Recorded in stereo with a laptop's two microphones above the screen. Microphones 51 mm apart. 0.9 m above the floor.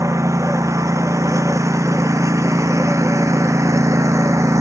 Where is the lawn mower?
85° right; by 4.6 s 80° right.